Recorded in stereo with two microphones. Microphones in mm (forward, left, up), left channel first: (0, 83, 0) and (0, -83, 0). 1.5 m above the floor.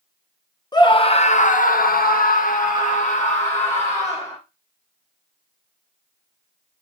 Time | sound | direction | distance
0.7 | a scream | 25° left (ahead or behind) | 0.8 m